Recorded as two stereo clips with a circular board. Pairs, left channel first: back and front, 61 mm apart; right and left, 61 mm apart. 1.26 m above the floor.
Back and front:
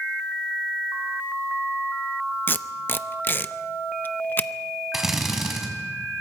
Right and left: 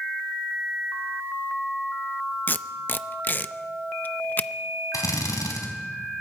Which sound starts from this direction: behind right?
Tape being pulled, at 2.5 s.